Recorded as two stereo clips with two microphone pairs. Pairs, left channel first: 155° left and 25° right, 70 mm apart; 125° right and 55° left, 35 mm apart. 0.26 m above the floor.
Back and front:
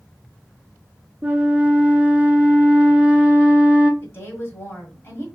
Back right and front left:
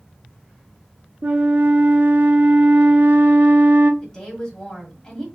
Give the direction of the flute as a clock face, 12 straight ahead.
10 o'clock.